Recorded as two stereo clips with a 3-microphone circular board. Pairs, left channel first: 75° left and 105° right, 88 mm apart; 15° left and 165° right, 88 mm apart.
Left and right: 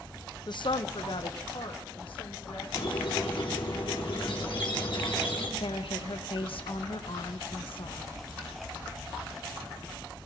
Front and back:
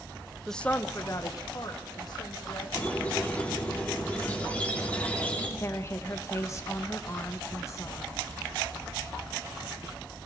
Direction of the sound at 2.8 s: 90° left.